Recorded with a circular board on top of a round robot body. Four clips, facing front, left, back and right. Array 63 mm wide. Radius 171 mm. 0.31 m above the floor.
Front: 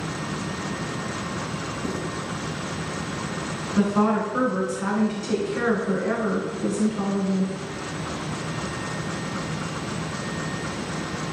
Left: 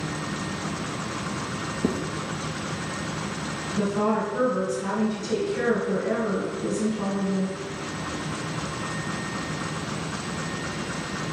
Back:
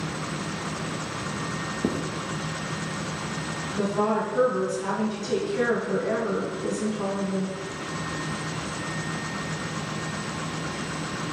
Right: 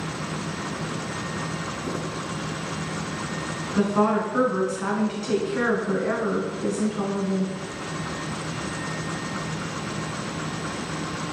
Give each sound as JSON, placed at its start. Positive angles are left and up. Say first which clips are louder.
{"t": 1.8, "sound": "writing", "louder": "left 6 dB, back 4 dB", "azimuth_deg": 140, "distance_m": 2.0}
{"t": 3.8, "sound": "a woman speaking", "louder": "right 3 dB, front 3 dB", "azimuth_deg": -55, "distance_m": 4.5}